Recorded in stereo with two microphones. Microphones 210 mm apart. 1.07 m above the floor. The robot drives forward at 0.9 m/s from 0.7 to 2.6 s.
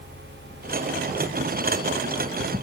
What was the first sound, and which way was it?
Only background noise.